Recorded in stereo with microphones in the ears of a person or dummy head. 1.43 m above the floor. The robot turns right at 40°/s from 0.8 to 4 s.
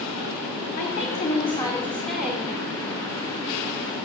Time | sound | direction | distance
0.8 | a woman speaking | 125° left | 4.5 m